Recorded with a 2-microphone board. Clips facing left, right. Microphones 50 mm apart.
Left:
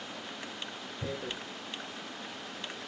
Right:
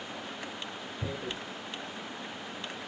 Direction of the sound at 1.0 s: 10° left (ahead or behind).